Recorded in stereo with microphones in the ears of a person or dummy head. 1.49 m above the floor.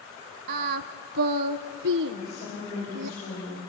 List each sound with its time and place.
0.5 s singing: 55° right (ahead or behind), 0.6 m
2.1 s a woman speaking: 40° left (ahead or behind), 7 m